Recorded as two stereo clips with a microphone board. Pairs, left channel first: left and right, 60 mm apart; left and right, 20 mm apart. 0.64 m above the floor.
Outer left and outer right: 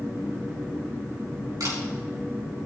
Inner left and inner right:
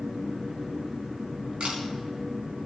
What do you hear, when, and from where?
1.6 s a camera shutter: 80° right, 4.5 m